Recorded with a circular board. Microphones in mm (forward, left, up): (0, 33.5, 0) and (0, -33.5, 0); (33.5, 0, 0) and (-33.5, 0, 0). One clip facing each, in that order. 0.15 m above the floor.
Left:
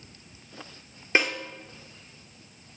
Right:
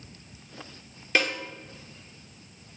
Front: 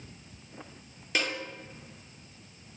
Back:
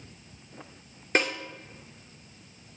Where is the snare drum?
145° left, 2 m.